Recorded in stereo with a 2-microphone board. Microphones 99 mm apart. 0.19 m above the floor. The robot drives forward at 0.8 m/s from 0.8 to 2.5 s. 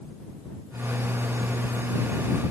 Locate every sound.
Only background noise.